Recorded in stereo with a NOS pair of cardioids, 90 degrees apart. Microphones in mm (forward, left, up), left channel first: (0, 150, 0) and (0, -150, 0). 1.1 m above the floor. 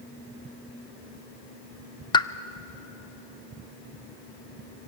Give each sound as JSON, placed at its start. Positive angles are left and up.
{"t": 2.1, "sound": "a pop", "azimuth_deg": 15, "distance_m": 0.6}